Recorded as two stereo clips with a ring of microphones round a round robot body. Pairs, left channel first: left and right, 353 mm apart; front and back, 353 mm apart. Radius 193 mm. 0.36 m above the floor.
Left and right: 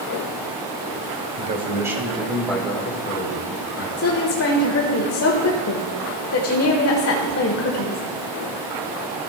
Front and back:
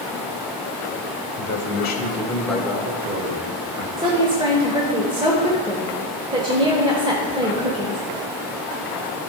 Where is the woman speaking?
110° left, 1.3 m.